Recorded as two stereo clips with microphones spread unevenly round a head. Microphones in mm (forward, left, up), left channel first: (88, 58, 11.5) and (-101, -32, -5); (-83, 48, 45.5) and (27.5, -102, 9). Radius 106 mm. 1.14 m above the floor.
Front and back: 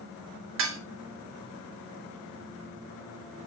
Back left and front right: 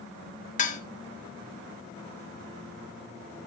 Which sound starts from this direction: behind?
Dishes clattering, at 0.6 s.